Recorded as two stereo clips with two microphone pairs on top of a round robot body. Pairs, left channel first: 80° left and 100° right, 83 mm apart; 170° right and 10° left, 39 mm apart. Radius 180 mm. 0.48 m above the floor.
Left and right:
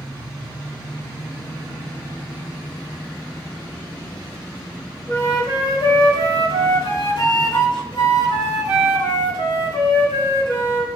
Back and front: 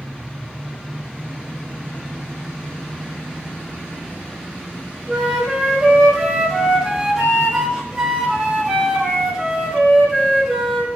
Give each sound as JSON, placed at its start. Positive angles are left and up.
{"t": 5.1, "sound": "a flute", "azimuth_deg": 90, "distance_m": 4.0}